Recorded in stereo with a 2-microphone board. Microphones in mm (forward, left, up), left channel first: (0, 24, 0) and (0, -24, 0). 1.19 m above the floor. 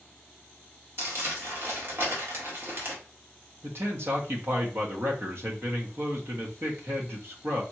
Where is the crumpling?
55° right (ahead or behind), 1.8 m.